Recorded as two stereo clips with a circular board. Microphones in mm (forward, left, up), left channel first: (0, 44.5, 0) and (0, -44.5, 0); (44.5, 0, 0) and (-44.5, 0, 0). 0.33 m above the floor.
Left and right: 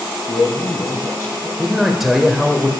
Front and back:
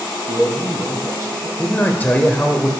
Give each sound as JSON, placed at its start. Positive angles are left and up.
{"t": 0.3, "sound": "a man speaking", "azimuth_deg": 135, "distance_m": 1.9}
{"t": 1.6, "sound": "a man speaking", "azimuth_deg": -5, "distance_m": 0.9}